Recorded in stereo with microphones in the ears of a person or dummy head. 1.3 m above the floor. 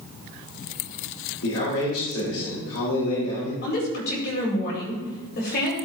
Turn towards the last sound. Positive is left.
turn(degrees=55)  # may be behind; listen again after turning